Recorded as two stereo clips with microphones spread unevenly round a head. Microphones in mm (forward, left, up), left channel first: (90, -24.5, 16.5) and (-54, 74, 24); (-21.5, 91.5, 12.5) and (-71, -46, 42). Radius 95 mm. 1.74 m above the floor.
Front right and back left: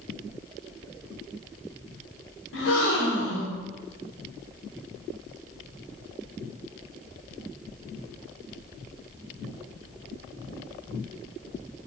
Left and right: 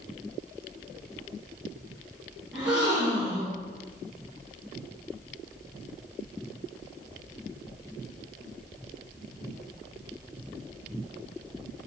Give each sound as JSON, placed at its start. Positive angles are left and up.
{"t": 2.5, "sound": "a gasp", "azimuth_deg": -25, "distance_m": 0.9}